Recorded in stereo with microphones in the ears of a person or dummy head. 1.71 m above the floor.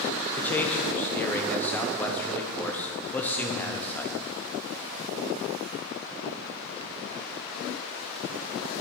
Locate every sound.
0.4 s a man speaking: 10° left (ahead or behind), 1.3 m